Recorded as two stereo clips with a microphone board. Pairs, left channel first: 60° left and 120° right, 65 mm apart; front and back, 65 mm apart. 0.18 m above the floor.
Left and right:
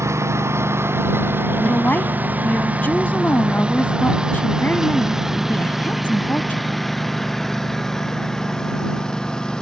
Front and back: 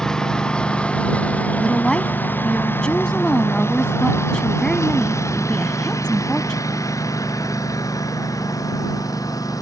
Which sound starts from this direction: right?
A lawn mower, at 0.0 s.